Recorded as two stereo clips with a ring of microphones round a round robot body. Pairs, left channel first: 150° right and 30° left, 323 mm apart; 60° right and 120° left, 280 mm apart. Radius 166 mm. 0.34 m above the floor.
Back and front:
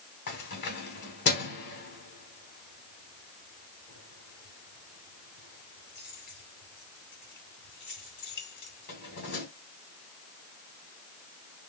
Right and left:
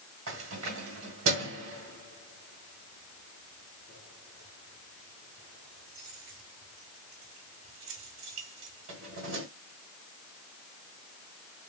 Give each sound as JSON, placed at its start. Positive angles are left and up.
{"t": 0.3, "sound": "keys jangling", "azimuth_deg": 160, "distance_m": 1.5}